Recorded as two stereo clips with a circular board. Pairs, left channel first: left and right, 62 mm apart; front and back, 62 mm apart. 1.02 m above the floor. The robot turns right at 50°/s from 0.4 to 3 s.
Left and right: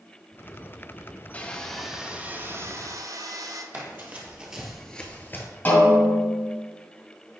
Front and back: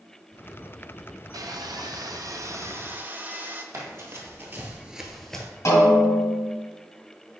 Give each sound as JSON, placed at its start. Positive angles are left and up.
{"t": 1.3, "sound": "sawing", "azimuth_deg": 155, "distance_m": 0.6}
{"t": 3.7, "sound": "running footsteps", "azimuth_deg": -140, "distance_m": 1.8}
{"t": 5.7, "sound": "a snare drum", "azimuth_deg": 35, "distance_m": 2.0}